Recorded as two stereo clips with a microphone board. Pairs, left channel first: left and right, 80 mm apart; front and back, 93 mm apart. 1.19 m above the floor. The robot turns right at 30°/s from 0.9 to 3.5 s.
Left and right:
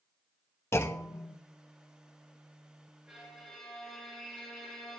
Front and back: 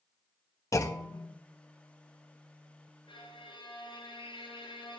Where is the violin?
5° right, 8 m; by 5.0 s 5° left, 8 m.